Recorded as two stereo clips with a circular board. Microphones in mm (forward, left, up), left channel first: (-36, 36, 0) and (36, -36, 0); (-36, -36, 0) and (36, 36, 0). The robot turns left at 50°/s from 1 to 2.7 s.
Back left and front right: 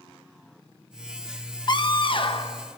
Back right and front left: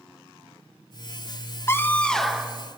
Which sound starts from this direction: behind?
A scream, at 1.7 s.